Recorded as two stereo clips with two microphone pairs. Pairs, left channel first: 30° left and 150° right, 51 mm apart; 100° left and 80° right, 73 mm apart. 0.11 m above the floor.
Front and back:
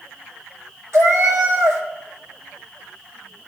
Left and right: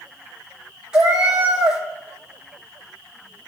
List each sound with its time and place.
0.9 s a cat meowing: 155° right, 2.0 m